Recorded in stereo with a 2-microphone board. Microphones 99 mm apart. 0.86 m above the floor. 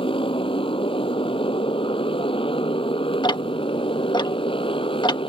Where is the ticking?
50° left (ahead or behind).